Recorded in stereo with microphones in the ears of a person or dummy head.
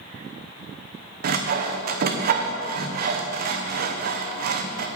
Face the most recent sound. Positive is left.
turn(degrees=-45)  # may be behind; listen again after turning